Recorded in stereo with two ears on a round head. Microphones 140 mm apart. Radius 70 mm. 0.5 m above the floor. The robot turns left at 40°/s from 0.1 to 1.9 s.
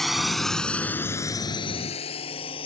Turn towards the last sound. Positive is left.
turn(degrees=30)  # may be behind; listen again after turning